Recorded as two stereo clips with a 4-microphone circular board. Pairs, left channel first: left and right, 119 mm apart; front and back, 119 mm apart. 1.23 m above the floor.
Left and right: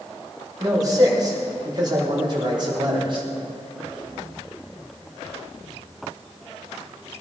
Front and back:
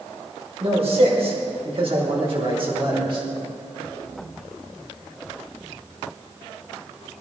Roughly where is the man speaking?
Behind right.